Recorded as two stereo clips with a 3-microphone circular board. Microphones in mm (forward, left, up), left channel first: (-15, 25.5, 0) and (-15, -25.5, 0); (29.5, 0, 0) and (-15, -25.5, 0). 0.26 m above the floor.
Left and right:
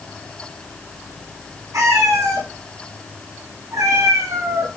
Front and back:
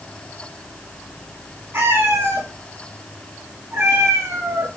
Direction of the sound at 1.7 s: 110° right.